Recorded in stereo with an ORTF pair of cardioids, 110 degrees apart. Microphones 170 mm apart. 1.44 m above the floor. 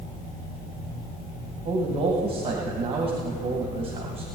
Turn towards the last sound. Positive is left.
turn(degrees=-35)